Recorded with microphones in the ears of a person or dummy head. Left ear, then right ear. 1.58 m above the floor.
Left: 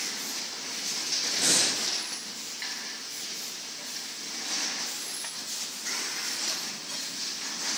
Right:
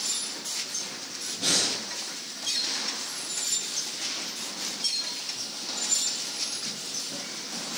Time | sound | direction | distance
1.4 | breathing | 50° left (ahead or behind) | 6.5 m